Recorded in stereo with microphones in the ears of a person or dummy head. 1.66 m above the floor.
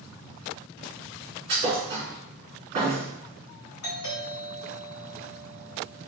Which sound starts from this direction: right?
A thud, at 1.5 s.